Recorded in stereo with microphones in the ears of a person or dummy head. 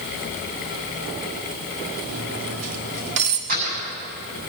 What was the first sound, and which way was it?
Cutlery clinking, 70° right (ahead or behind).